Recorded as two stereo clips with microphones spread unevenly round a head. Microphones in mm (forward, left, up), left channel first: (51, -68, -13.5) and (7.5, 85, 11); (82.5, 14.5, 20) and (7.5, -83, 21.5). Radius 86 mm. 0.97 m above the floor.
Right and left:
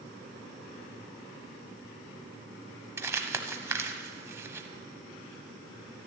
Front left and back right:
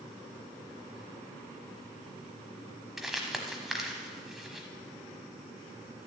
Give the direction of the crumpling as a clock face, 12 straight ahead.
7 o'clock.